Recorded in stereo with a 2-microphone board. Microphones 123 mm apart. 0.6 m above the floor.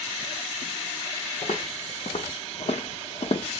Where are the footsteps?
65° left (ahead or behind), 1.9 m; by 3.5 s 50° left (ahead or behind), 0.8 m.